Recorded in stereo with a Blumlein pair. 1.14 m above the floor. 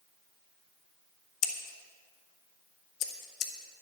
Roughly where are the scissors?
Ahead left.